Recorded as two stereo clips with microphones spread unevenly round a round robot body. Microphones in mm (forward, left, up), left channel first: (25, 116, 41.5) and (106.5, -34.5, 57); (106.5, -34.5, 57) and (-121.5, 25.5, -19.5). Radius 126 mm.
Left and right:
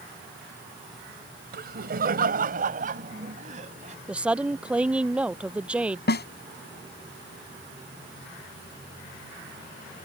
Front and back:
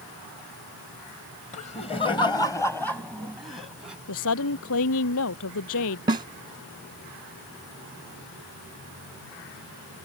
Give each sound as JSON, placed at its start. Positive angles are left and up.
{"t": 1.5, "sound": "laughter", "azimuth_deg": -85}
{"t": 4.1, "sound": "a woman speaking", "azimuth_deg": 20}
{"t": 6.1, "sound": "a snare drum", "azimuth_deg": 100}